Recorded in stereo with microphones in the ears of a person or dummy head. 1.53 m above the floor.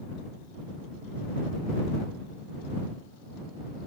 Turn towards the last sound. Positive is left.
No sound to turn to.